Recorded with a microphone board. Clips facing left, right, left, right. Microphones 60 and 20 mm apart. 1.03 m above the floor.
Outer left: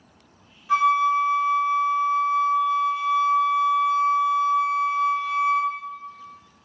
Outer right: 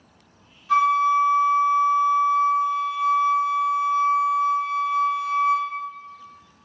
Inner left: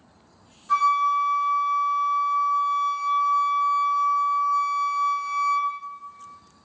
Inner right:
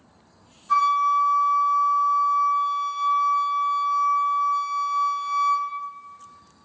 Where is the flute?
10° left (ahead or behind), 1.1 m.